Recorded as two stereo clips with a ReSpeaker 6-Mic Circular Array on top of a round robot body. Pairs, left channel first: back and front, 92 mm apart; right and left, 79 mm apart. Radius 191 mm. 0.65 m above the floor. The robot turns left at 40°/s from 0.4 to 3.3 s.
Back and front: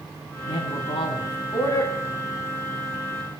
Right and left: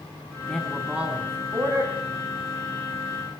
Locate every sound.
0.5 s a man speaking: 175° right, 7.5 m; by 2.0 s 125° left, 7.5 m